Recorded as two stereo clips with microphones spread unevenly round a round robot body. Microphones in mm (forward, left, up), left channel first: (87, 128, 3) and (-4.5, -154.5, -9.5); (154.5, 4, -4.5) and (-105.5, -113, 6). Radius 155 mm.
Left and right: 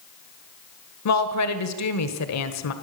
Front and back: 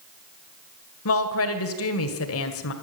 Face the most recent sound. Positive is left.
turn(degrees=55)